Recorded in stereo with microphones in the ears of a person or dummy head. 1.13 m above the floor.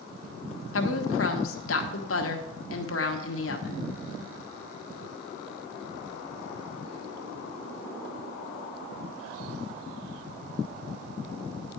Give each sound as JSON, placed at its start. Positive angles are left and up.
{"t": 0.7, "sound": "a woman speaking", "side_deg": 70, "distance_m": 1.3}